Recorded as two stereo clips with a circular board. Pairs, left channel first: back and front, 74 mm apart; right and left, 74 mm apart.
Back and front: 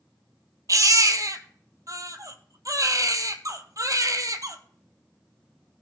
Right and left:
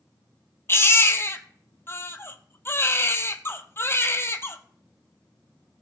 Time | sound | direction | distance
0.7 | a baby crying | 35° right | 1.0 m